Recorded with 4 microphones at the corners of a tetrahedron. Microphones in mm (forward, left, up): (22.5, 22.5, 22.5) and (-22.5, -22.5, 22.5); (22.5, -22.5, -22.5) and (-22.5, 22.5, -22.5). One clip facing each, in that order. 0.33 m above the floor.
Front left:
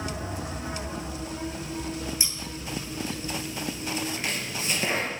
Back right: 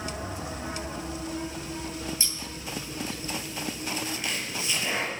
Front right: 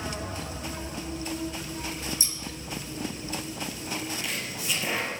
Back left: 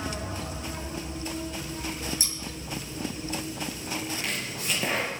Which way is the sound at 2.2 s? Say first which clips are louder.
Front left 1 dB, even; 115° left.